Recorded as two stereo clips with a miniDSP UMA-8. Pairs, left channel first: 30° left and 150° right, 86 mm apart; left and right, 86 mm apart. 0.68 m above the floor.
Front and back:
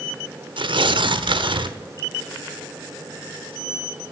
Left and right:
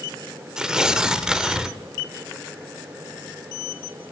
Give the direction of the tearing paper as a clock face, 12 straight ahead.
6 o'clock.